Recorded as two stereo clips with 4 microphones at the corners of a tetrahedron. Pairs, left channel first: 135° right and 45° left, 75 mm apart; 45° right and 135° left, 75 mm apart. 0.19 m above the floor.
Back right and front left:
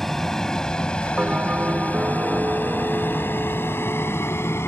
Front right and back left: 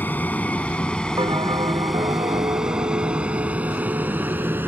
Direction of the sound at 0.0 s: 55° right.